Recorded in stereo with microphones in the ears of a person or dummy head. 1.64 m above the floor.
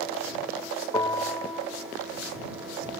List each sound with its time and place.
0.9 s a bell: 25° left (ahead or behind)